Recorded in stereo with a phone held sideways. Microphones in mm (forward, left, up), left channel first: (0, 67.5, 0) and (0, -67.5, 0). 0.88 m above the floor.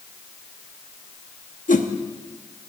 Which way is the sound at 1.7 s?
75° left (ahead or behind).